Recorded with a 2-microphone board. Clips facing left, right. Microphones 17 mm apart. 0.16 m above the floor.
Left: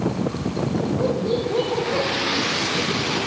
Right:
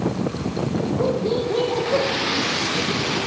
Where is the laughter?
40° right (ahead or behind), 6.5 m; by 2.1 s 45° right (ahead or behind), 6 m.